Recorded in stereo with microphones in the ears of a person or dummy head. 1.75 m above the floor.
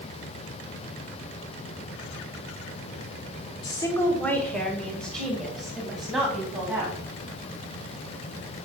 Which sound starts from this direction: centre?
A woman speaking, at 3.6 s.